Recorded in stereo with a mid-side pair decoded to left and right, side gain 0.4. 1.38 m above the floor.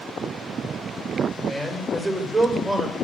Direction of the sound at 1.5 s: 35° right.